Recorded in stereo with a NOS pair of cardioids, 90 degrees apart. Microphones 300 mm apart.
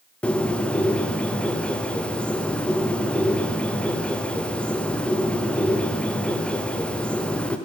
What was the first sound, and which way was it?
A bird, 5° left.